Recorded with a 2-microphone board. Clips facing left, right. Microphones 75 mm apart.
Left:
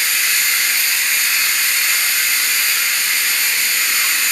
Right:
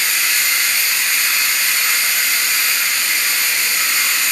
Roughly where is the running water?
Right.